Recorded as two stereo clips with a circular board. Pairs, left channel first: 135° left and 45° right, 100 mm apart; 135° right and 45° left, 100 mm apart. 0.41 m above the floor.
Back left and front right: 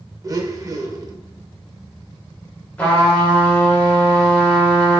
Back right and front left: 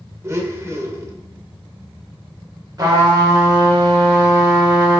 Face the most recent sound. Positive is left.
turn(degrees=60)